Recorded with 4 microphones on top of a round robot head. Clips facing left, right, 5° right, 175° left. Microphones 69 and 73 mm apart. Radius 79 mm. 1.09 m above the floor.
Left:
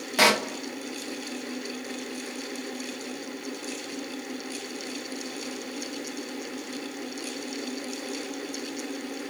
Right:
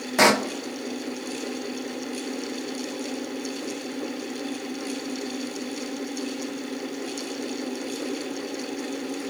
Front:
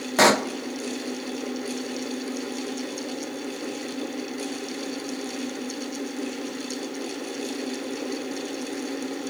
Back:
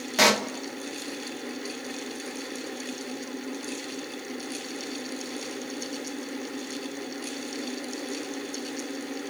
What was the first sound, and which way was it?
A pop, 35° right.